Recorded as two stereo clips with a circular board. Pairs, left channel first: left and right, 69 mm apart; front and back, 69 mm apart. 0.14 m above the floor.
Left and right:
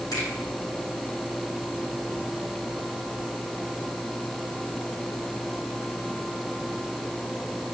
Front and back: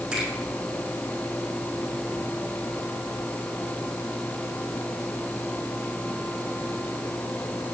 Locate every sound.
0.1 s a finger snap: 100° left, 3.5 m